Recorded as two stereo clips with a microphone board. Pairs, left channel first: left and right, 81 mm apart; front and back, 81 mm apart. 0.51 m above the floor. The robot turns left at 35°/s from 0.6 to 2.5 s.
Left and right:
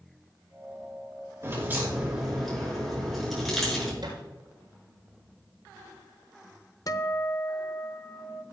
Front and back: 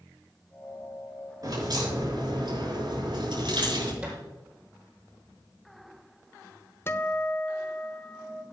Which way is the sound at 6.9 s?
55° left.